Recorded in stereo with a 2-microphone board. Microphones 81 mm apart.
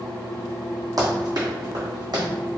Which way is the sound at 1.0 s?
55° right (ahead or behind).